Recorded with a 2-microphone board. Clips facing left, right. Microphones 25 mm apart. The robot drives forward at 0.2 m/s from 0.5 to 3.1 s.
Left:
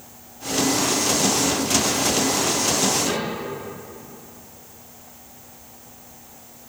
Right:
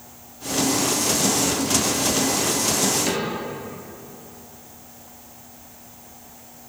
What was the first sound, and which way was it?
A cupboard door, 25° right (ahead or behind).